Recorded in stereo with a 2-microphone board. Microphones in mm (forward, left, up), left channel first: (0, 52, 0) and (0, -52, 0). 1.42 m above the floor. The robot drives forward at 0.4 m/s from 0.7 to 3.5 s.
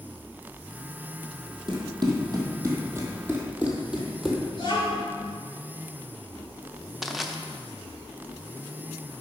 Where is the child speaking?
45° left (ahead or behind), 3 m.